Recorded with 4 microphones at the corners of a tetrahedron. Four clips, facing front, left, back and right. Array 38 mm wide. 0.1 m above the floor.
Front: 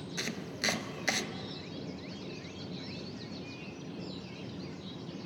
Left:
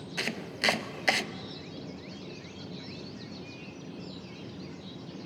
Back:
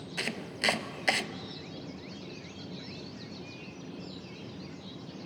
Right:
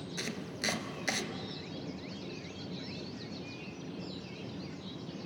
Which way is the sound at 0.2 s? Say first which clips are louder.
Left 7 dB, back 4 dB; 125° left.